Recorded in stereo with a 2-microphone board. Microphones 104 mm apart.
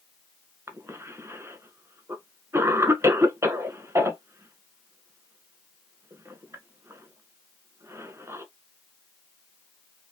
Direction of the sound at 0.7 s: 25° right (ahead or behind).